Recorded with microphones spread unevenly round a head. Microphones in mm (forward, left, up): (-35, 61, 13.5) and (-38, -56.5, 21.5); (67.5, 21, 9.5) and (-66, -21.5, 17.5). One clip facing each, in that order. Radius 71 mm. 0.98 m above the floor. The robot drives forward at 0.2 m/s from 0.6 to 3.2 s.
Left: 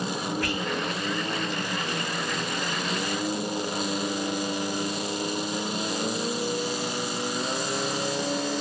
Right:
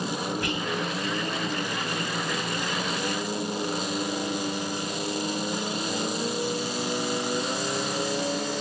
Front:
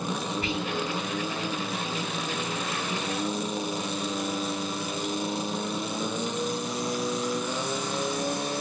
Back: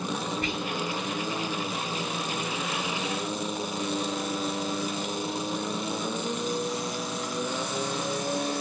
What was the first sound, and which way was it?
Whispering, 155° right.